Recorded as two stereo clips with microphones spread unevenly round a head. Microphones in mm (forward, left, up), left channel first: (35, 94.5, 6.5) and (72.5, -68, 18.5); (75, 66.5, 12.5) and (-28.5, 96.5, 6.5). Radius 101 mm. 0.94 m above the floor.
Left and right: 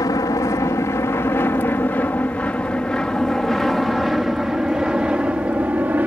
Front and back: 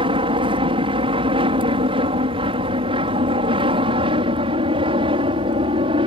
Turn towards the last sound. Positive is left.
turn(degrees=-160)